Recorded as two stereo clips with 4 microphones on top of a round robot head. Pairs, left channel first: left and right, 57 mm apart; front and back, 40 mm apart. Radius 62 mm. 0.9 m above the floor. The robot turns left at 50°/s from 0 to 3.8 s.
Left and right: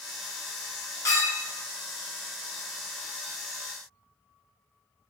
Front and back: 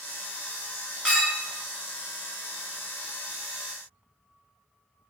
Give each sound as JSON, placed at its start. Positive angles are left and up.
{"t": 1.1, "sound": "a clink", "azimuth_deg": 65, "distance_m": 1.5}